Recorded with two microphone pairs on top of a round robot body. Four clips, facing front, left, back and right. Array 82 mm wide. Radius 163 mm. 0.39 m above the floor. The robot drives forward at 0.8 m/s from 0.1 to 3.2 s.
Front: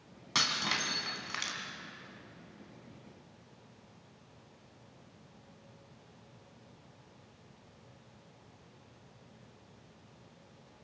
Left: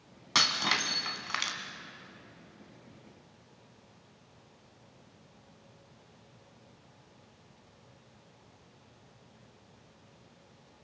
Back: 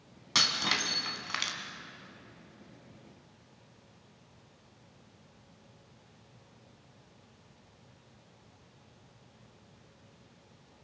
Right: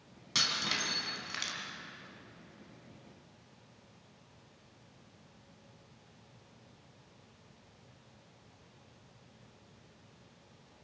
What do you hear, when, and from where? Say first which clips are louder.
0.3 s breaking glass: left 6 dB, back 2 dB; 90° left, 2.5 m; by 1.6 s 110° left, 3 m